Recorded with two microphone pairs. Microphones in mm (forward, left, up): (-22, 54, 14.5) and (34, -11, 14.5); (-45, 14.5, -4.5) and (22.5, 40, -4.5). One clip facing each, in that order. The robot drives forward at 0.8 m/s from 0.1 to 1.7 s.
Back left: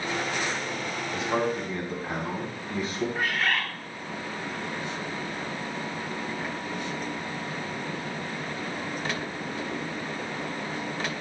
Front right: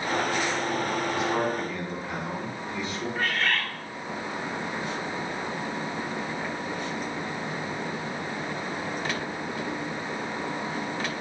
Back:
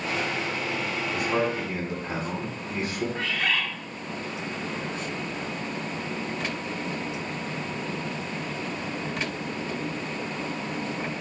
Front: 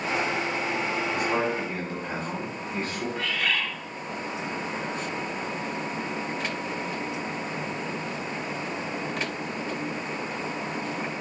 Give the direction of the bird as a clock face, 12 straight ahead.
5 o'clock.